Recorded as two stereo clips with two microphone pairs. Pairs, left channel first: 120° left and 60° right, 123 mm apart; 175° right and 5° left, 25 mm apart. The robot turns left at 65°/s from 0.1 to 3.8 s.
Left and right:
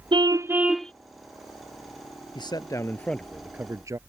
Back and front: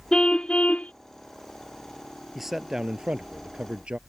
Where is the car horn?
110° right; by 0.9 s 160° right.